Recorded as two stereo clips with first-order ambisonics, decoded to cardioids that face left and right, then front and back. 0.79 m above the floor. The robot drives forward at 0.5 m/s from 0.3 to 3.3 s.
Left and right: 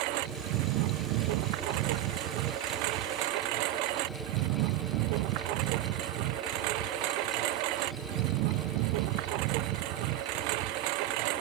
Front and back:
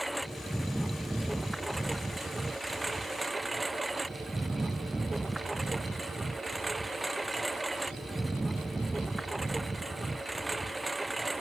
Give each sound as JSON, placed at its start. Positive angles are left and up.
{"t": 0.0, "sound": "a lawn mower", "azimuth_deg": -90}